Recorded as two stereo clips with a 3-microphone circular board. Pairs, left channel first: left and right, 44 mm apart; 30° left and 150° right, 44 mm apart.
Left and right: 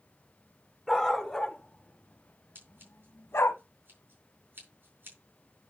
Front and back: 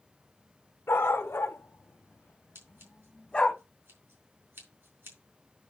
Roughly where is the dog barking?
Ahead.